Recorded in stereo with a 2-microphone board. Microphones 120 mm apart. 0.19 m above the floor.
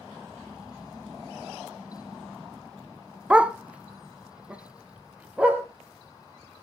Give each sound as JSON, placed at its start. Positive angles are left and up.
{"t": 3.3, "sound": "a dog barking", "side_deg": -10, "distance_m": 0.5}